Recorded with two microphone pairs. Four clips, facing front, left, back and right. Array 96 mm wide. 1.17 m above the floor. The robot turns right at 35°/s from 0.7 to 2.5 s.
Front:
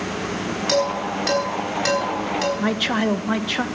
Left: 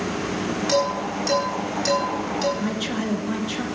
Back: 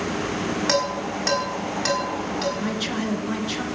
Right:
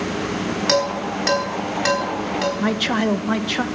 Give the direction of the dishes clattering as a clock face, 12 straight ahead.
4 o'clock.